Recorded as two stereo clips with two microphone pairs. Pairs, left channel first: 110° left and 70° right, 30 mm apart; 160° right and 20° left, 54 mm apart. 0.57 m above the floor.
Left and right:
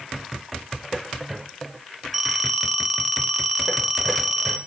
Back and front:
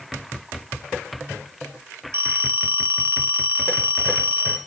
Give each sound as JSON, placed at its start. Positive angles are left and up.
{"t": 2.1, "sound": "a phone ringing", "azimuth_deg": 10, "distance_m": 0.8}